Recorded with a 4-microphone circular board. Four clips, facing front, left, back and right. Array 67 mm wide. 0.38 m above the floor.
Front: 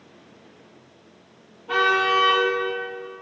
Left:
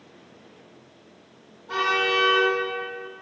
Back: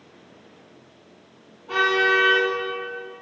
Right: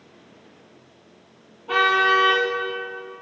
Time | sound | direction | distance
1.7 | a car horn | 85° right | 6 m